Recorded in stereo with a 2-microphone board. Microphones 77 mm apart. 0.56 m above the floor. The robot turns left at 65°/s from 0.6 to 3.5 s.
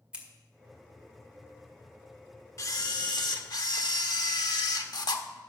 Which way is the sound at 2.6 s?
130° left.